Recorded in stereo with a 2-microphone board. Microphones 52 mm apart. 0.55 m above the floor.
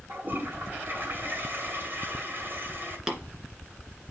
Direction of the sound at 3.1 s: 10° right (ahead or behind).